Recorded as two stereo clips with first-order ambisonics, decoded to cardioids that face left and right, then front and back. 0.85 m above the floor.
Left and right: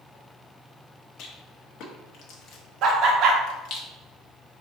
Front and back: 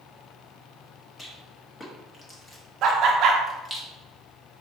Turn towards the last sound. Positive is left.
turn(degrees=-135)